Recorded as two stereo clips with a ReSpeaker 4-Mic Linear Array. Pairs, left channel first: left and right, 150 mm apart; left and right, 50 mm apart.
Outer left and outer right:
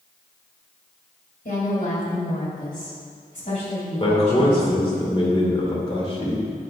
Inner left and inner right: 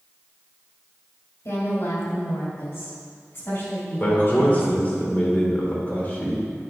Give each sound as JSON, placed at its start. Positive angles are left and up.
{"t": 1.4, "sound": "a woman speaking", "side_deg": 65, "distance_m": 2.5}
{"t": 4.0, "sound": "a man speaking", "side_deg": 35, "distance_m": 1.9}